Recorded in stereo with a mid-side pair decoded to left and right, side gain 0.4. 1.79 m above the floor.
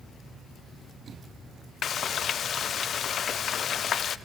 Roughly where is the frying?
Ahead left.